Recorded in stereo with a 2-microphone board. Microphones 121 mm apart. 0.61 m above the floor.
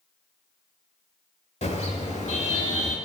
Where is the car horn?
70° left (ahead or behind), 7 m; by 3.0 s 80° left, 6 m.